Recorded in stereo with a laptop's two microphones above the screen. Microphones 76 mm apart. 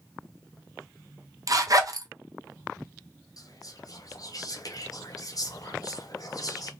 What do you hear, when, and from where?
1.5 s a zipper: 50° right (ahead or behind), 0.7 m
3.4 s whispering: 50° left (ahead or behind), 0.8 m